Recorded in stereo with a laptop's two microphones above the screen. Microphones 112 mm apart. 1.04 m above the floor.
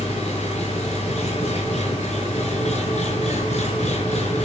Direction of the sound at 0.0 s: 75° left (ahead or behind).